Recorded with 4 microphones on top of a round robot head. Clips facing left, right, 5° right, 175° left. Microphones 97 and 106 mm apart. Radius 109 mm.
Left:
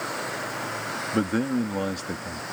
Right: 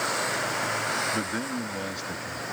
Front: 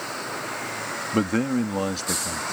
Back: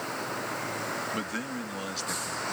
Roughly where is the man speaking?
Ahead left.